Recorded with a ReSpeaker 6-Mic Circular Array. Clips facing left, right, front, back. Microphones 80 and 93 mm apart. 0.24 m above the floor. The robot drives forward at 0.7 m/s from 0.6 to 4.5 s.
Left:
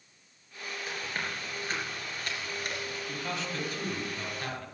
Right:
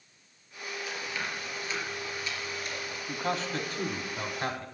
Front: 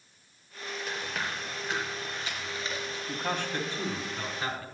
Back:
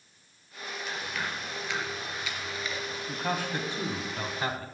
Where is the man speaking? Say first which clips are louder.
Right 7 dB, back 1 dB; 90° right, 1.5 m; by 4.7 s 135° right, 1.8 m.